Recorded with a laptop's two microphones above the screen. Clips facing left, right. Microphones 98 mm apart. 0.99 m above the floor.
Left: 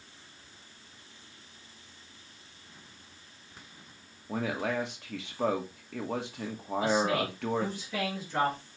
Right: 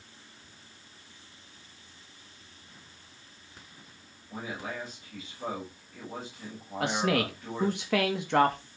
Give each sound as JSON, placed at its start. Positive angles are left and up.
{"t": 4.3, "sound": "a man speaking", "side_deg": 70, "distance_m": 2.5}
{"t": 6.8, "sound": "a man speaking", "side_deg": -65, "distance_m": 1.9}